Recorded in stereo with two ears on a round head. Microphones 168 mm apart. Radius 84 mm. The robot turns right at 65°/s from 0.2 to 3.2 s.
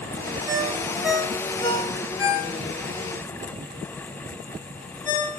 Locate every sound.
0.5 s a ringtone: 45° right (ahead or behind), 4 m; by 5.4 s 50° left (ahead or behind), 4 m